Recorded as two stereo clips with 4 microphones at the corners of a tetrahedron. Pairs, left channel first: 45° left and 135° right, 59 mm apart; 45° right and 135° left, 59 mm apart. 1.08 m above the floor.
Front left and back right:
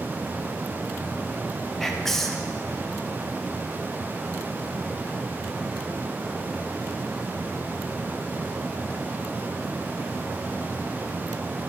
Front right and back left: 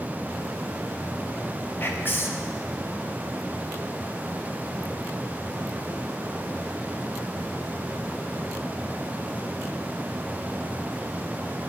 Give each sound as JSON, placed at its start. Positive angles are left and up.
{"t": 1.8, "sound": "whispering", "azimuth_deg": -35, "distance_m": 0.8}